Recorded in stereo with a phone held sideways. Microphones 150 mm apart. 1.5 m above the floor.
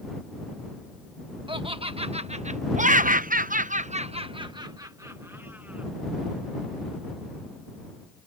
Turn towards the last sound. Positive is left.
turn(degrees=-10)  # may be behind; listen again after turning